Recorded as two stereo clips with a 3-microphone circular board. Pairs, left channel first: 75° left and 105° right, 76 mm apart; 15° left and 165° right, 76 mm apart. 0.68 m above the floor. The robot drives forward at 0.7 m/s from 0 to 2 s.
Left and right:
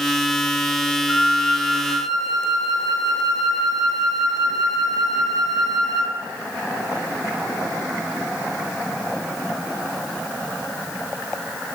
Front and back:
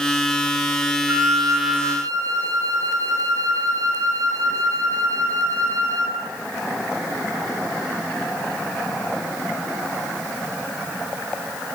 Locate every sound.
1.1 s a flute: 140° left, 0.6 m; by 6.2 s 160° left, 1.1 m